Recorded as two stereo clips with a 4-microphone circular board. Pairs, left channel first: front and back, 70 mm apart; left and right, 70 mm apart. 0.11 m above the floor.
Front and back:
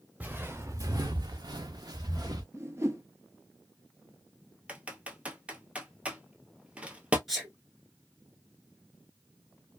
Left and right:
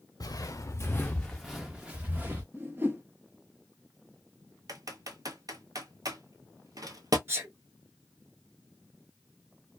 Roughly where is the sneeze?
Right.